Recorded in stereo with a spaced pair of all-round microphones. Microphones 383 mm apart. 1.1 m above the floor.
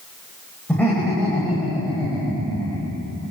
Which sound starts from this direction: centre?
Laughter, at 0.7 s.